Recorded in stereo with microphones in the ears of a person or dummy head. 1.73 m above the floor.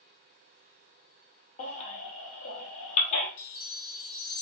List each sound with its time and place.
1.6 s a baby crying: 45° left (ahead or behind), 0.8 m
3.4 s a chime: 45° left (ahead or behind), 1.4 m